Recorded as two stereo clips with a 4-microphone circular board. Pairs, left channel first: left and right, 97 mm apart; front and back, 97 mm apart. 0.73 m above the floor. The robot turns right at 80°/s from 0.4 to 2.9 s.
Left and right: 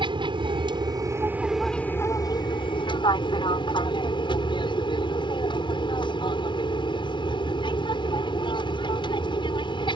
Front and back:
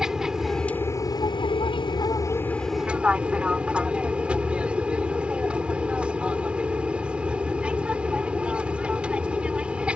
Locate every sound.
0.0 s an aircraft: 95° right; by 10.0 s 105° left